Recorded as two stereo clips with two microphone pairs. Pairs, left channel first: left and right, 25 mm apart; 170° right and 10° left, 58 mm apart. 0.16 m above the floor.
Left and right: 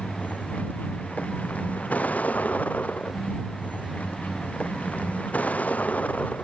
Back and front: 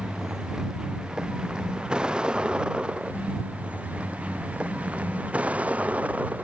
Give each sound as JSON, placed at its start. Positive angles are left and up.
{"t": 0.0, "sound": "a vehicle", "azimuth_deg": 90}